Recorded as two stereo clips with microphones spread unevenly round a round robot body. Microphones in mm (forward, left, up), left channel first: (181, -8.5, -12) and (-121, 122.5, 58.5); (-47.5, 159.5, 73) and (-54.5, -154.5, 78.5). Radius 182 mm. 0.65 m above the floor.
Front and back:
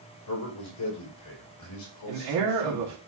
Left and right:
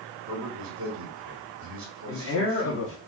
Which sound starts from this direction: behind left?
A man speaking, at 2.1 s.